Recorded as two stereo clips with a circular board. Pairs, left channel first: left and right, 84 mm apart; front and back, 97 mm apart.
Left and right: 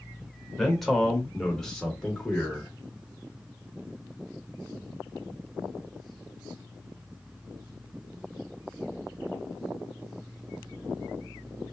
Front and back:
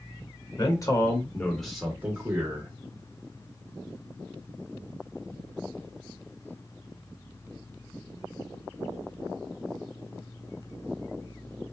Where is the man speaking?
5° left, 1.2 m; by 2.7 s 170° left, 1.1 m.